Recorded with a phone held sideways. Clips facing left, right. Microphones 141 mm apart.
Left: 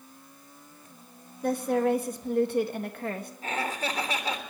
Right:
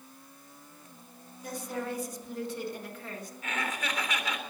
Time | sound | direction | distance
1.4 | a woman speaking | 60° left (ahead or behind) | 1.7 m
3.4 | laughter | 35° left (ahead or behind) | 3.5 m